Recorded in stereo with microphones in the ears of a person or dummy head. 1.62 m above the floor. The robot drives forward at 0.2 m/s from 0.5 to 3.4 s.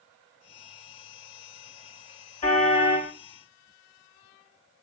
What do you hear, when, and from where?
2.4 s a car horn: 35° left (ahead or behind), 4.5 m